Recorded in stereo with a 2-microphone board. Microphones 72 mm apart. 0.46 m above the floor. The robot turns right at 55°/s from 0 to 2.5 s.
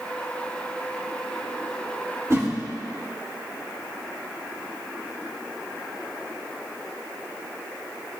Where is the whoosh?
40° right (ahead or behind), 1.8 m; by 2.5 s 30° right (ahead or behind), 1.8 m.